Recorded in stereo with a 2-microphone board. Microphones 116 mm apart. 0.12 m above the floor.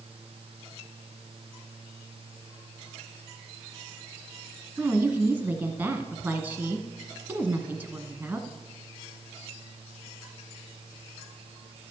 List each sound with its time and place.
4.8 s a woman speaking: 15° right (ahead or behind), 1.3 m